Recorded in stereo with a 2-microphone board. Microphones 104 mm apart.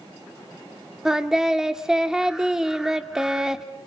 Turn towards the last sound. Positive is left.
turn(degrees=-5)  # may be behind; listen again after turning